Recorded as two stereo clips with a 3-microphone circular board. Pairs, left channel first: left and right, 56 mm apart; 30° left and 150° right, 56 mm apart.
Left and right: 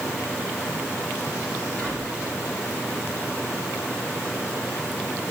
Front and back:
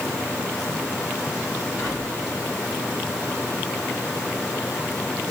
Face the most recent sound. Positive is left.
turn(degrees=15)